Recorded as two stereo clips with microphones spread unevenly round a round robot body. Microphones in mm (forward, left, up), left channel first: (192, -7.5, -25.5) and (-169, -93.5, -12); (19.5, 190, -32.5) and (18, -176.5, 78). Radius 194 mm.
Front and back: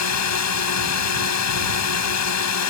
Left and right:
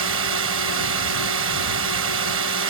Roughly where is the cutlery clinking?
I don't hear cutlery clinking.